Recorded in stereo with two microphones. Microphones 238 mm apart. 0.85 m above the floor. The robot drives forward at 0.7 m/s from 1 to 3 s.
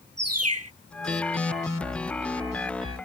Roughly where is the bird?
Right.